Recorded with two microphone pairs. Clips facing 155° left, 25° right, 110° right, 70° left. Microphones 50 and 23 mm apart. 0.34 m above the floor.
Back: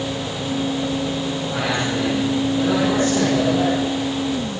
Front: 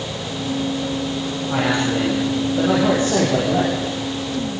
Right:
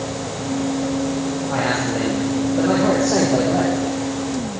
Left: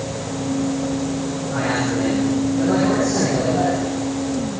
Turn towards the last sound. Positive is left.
turn(degrees=-85)